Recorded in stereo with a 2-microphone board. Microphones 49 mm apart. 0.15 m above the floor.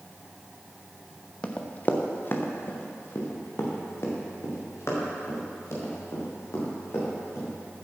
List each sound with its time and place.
1.4 s running footsteps: 25° left (ahead or behind), 1.7 m; by 7.5 s 65° left (ahead or behind), 8 m